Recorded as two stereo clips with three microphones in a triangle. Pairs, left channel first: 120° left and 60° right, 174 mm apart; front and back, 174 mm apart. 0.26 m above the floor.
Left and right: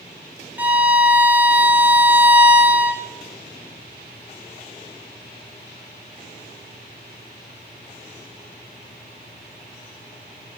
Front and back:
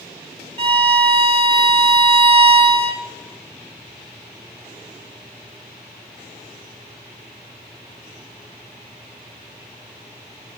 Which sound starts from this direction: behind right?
A violin, at 0.6 s.